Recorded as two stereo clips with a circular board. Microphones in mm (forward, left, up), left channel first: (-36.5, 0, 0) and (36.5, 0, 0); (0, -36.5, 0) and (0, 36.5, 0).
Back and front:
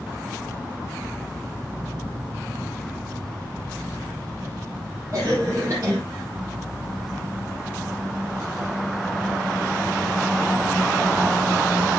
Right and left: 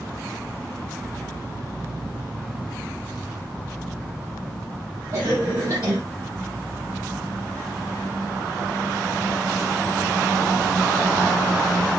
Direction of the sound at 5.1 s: 50° left.